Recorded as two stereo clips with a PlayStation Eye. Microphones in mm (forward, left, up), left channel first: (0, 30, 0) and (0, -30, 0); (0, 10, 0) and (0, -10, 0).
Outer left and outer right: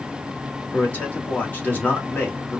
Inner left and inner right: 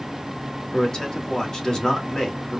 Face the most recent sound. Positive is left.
turn(degrees=25)  # may be behind; listen again after turning